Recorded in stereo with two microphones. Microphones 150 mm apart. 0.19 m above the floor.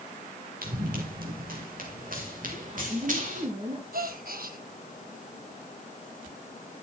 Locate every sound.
0.6 s running footsteps: 75° right (ahead or behind), 5.5 m; by 3.5 s 60° right (ahead or behind), 6.5 m
2.5 s a woman speaking: 45° right (ahead or behind), 3 m
3.9 s a gasp: 80° right, 1.5 m